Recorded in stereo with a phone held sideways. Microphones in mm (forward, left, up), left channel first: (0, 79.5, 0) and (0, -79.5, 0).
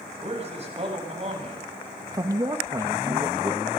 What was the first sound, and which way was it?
A man speaking, 45° right (ahead or behind).